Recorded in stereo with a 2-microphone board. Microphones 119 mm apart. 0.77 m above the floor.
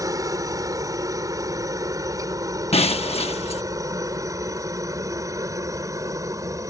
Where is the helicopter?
30° right (ahead or behind).